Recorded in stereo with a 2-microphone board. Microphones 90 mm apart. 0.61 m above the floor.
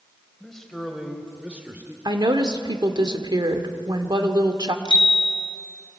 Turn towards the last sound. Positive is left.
turn(degrees=55)  # may be behind; listen again after turning